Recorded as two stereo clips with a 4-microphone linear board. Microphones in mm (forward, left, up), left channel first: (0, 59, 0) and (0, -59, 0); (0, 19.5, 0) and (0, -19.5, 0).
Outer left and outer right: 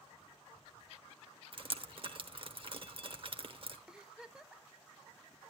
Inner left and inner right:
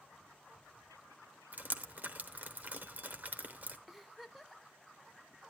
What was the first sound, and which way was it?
Dripping, 50° right (ahead or behind).